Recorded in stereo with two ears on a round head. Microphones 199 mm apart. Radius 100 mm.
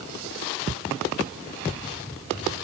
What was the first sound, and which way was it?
Only background noise.